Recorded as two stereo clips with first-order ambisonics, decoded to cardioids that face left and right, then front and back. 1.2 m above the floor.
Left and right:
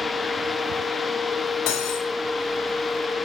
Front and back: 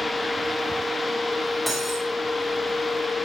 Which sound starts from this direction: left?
Cutlery clinking, at 1.7 s.